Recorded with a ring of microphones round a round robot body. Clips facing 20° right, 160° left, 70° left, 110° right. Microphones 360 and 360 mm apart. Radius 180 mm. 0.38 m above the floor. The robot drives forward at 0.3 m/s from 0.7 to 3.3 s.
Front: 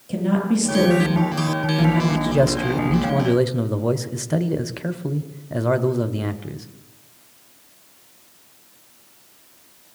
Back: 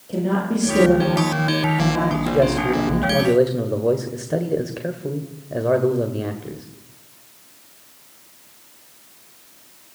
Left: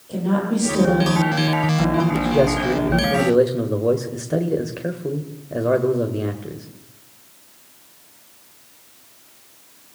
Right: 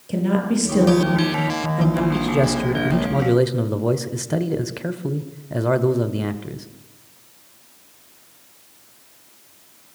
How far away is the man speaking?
About 1.7 m.